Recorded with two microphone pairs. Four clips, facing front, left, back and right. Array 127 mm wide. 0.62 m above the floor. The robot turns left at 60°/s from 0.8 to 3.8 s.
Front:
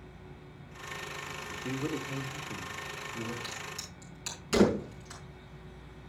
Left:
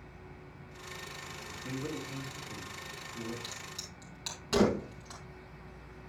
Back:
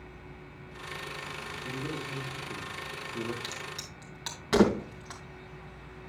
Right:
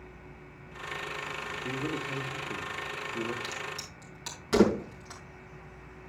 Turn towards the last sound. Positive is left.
turn(degrees=180)